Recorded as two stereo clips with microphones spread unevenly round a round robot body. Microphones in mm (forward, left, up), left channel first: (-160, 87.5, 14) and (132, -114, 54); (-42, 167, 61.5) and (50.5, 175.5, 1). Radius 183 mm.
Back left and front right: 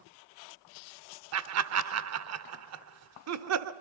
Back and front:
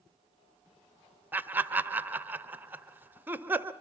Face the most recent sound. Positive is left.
turn(degrees=5)